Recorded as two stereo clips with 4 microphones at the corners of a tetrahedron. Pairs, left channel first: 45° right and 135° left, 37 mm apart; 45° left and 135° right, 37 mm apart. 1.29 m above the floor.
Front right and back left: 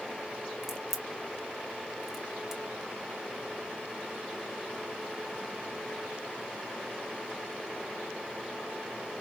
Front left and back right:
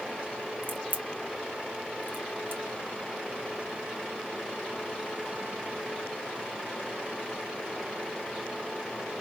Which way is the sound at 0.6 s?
150° right.